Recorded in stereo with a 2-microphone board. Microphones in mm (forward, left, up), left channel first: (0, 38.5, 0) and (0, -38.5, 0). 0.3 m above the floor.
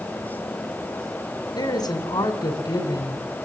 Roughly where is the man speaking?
Left.